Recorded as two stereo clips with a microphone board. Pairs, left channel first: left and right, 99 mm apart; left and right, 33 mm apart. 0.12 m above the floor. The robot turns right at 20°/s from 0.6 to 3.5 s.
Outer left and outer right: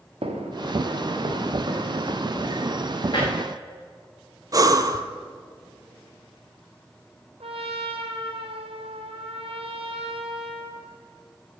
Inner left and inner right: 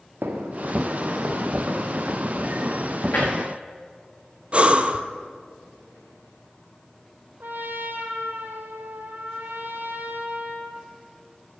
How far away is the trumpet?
About 1.1 m.